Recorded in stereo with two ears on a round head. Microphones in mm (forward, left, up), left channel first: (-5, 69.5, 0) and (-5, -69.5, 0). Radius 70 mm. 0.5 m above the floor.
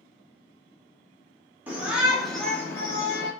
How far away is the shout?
About 0.9 m.